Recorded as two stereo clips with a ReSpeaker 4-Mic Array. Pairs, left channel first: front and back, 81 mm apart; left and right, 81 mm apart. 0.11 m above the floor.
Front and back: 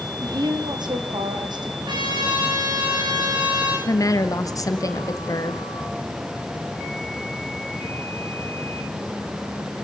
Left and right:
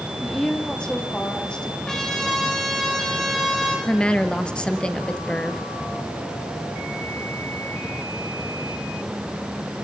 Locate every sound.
0.2 s a woman speaking: 170° left, 4 m
1.9 s a trumpet: 175° left, 9.5 m
3.9 s a woman speaking: 15° left, 2.5 m